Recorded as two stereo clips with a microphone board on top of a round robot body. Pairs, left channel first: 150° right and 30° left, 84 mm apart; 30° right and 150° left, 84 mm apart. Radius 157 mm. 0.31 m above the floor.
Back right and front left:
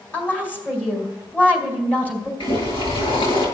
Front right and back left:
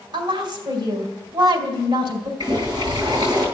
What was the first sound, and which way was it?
A woman speaking, 140° left.